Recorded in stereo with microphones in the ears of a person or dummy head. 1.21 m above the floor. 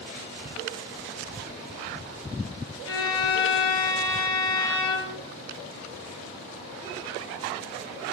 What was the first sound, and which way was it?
A violin, 75° left (ahead or behind).